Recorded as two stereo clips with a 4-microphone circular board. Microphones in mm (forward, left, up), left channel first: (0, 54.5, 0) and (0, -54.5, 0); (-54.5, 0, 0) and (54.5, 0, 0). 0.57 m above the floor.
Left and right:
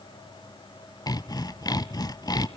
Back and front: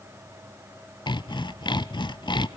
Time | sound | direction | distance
1.1 | sawing | 140° left | 0.8 m